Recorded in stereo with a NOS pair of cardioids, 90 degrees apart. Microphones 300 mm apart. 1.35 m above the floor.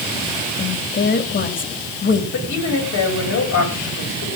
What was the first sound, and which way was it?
A woman speaking, 40° left.